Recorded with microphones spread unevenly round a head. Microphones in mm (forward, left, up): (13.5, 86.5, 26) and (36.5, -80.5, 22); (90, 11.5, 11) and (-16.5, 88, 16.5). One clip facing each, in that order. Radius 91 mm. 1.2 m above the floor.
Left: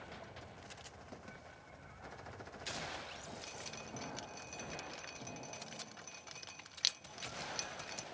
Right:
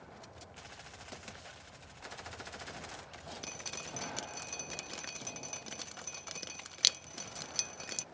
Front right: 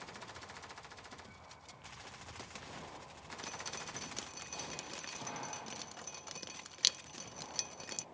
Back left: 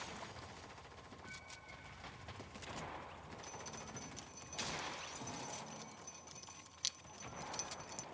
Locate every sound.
3.4 s dripping: 60° right